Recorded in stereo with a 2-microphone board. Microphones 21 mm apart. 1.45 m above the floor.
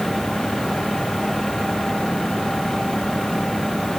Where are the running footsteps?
I don't hear running footsteps.